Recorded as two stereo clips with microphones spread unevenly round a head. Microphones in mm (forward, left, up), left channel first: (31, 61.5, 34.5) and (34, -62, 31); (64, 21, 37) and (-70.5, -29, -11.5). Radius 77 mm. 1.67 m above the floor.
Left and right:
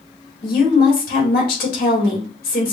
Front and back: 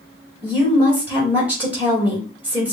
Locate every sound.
0.4 s a woman speaking: 115° left, 1.8 m